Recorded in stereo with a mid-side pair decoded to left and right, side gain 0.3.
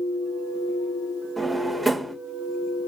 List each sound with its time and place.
1.4 s a drawer: 35° right, 1.1 m